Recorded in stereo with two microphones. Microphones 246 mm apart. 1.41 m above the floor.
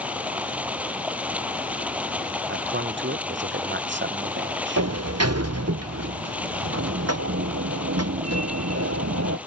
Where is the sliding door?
85° right.